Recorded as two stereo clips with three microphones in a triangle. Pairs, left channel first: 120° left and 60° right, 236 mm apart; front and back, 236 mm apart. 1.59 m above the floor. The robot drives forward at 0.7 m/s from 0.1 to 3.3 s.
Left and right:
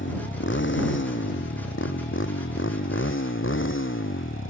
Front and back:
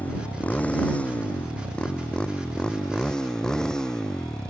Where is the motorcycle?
85° left.